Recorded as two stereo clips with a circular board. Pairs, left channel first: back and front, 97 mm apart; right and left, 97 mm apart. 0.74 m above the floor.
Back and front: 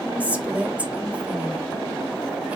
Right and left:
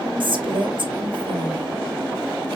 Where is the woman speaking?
75° left, 1.1 m.